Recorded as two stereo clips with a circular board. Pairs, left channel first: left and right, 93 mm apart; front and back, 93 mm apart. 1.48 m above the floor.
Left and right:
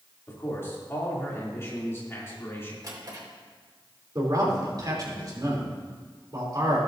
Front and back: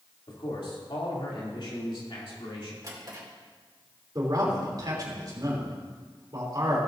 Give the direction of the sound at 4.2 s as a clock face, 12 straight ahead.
5 o'clock.